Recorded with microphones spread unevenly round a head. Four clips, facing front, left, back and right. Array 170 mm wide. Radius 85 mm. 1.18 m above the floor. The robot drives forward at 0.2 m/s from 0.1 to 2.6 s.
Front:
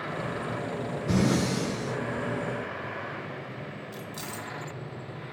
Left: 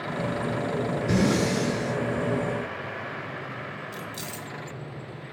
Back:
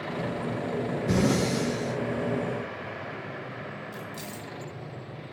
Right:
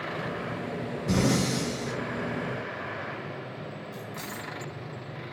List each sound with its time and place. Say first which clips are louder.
1.1 s breathing: left 1 dB, even; 165° right, 1.3 m
3.9 s keys jangling: left 1 dB, even; 55° left, 0.6 m